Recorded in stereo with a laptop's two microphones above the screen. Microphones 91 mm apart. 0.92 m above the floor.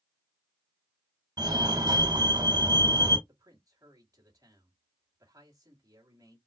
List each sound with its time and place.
1.4 s a fire alarm: 50° right (ahead or behind), 2.5 m
3.3 s a man speaking: 45° right (ahead or behind), 2 m